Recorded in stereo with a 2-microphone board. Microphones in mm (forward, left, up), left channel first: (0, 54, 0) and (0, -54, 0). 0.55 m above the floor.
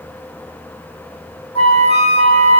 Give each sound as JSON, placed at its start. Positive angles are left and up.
{"t": 1.6, "sound": "a flute", "side_deg": 70, "distance_m": 1.1}